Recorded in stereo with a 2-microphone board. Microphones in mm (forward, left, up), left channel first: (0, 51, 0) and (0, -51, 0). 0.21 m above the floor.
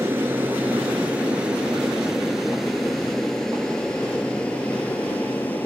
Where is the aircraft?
20° right (ahead or behind); by 5.7 s 15° left (ahead or behind).